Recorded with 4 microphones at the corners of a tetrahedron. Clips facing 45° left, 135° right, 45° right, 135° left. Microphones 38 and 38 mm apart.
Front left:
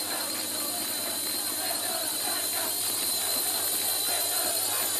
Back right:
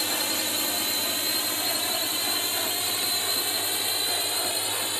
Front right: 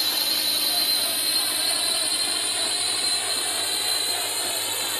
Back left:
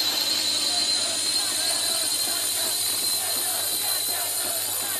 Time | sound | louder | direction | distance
0.0 | a drone | back right 6 dB, front right 1 dB | 130° right | ?